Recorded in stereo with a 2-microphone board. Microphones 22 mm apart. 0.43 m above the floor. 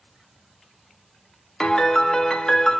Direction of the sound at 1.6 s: 30° left (ahead or behind).